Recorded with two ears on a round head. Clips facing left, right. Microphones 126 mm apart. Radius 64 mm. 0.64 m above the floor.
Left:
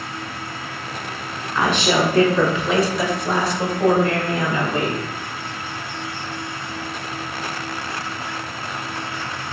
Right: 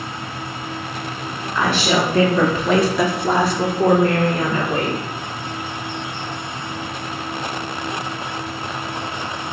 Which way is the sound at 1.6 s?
Centre (ahead or behind).